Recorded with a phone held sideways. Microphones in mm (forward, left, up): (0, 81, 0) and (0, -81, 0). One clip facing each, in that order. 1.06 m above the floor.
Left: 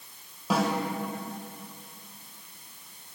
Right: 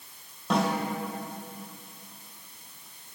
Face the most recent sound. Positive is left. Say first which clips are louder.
# even
turn(degrees=5)  # may be behind; listen again after turning